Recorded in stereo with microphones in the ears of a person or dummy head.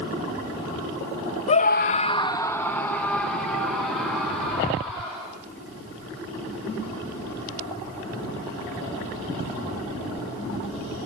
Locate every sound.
1.5 s a scream: 30° left (ahead or behind), 0.7 m; by 5.3 s 5° right (ahead or behind), 4 m